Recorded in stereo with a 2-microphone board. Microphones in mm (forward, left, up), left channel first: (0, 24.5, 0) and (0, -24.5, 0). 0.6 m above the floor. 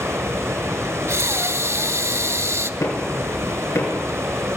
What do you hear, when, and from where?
0.0 s running water: 75° right (ahead or behind), 2.5 m
1.1 s breathing: 65° right (ahead or behind), 0.7 m
2.8 s knocking: 80° left, 5.5 m